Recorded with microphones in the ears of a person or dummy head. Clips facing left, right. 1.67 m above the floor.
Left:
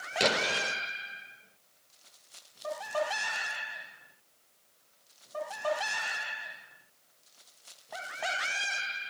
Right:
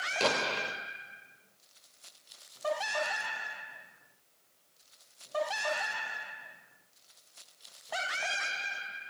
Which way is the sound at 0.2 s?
15° left (ahead or behind).